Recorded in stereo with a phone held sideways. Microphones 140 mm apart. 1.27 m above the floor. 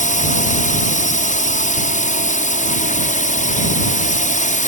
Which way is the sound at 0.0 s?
65° left (ahead or behind).